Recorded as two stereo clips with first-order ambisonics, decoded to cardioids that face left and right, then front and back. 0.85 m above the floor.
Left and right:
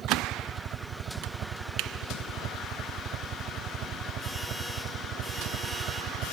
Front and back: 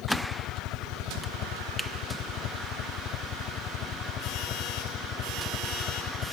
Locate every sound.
0.0 s a helicopter: 35° right; by 6.3 s 50° right